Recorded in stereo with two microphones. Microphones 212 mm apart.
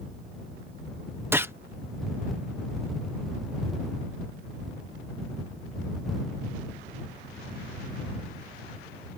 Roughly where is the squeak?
I don't hear a squeak.